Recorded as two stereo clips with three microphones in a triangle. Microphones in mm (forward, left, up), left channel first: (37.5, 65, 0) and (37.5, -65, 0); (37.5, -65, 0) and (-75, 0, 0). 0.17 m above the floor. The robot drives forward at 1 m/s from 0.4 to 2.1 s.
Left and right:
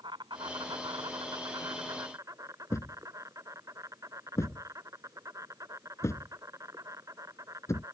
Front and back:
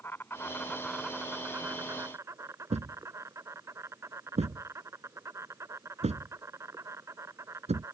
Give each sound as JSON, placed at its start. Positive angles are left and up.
{"t": 0.0, "sound": "an insect", "azimuth_deg": -90}
{"t": 2.7, "sound": "a thud", "azimuth_deg": 150}